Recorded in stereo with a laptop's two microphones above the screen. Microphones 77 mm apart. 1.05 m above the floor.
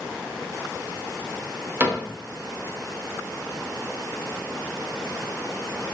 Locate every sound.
1.8 s a cupboard door: 25° right (ahead or behind), 0.6 m